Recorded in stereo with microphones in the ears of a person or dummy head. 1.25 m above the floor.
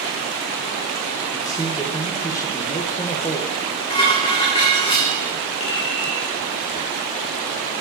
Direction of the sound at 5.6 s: 60° left (ahead or behind).